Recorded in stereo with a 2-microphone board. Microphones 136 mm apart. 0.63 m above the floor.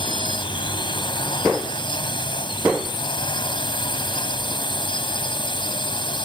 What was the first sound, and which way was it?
A drone, 35° left (ahead or behind).